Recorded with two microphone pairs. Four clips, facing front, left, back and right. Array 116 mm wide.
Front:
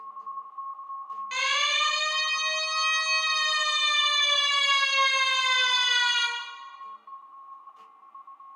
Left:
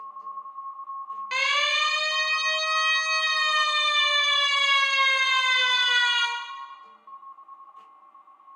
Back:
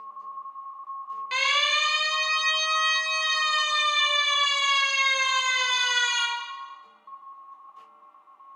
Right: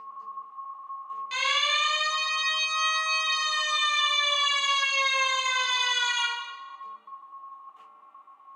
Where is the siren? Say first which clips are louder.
Left 2 dB, back 3 dB; 115° left, 5 m; by 6.3 s 80° left, 3.5 m.